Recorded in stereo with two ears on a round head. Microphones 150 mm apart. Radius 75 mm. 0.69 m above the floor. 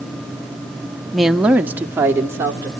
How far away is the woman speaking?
About 0.6 m.